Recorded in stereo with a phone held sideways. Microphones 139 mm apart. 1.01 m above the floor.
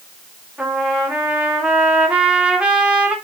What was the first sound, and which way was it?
A trumpet, 5° right (ahead or behind).